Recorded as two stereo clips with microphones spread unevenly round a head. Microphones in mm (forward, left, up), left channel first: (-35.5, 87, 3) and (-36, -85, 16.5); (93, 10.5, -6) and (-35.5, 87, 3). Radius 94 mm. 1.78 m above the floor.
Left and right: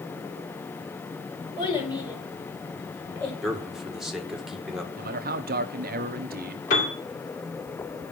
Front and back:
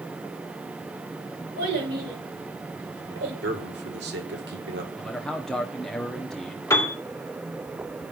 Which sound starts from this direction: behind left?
A child speaking, at 1.6 s.